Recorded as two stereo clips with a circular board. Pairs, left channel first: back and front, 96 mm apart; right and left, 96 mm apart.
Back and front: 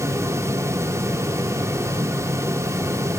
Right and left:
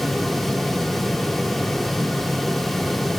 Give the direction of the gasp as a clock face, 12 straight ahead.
I don't hear a gasp.